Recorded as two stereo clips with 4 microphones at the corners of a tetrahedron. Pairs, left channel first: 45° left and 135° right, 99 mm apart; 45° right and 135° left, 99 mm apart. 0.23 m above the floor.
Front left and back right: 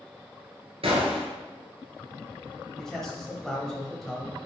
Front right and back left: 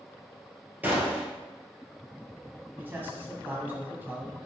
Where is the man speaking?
125° left, 1.1 m.